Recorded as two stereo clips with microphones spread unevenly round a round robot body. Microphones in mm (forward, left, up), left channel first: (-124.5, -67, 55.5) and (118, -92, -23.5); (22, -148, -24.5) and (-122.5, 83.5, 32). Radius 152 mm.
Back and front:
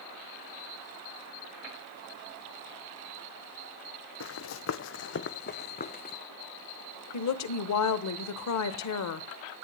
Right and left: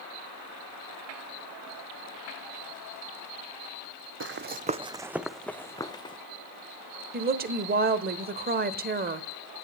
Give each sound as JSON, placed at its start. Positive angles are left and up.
{"t": 4.2, "sound": "running footsteps", "azimuth_deg": 155, "distance_m": 0.8}
{"t": 7.1, "sound": "a woman speaking", "azimuth_deg": 180, "distance_m": 1.2}